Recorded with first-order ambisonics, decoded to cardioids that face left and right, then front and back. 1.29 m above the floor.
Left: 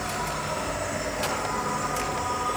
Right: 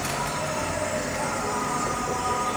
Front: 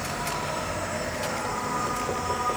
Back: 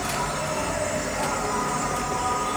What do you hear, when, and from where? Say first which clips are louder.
0.0 s an insect: right 2 dB, back 3 dB; 130° right, 2.5 m